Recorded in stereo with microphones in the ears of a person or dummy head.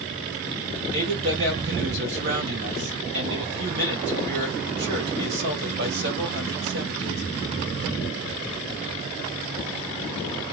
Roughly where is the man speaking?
Right.